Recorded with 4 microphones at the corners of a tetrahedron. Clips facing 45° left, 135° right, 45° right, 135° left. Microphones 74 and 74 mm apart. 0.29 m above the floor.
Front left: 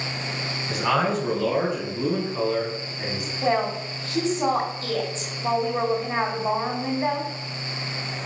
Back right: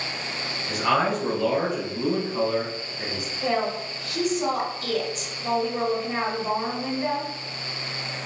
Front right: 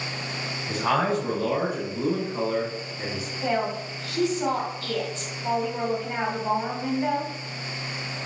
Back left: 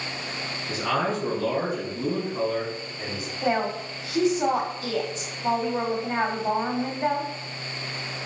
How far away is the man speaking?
About 2 m.